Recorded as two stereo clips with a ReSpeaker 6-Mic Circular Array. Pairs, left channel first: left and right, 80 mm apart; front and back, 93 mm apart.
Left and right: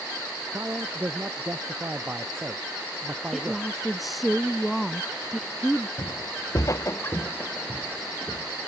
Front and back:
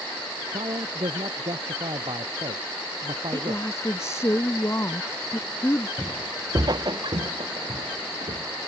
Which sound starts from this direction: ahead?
A woman speaking, at 3.3 s.